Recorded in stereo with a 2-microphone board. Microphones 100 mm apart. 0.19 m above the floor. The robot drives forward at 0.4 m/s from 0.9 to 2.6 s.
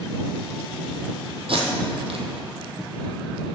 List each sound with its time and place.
1.5 s tape being pulled: 65° right (ahead or behind), 1.4 m; by 2.2 s 80° right, 1.3 m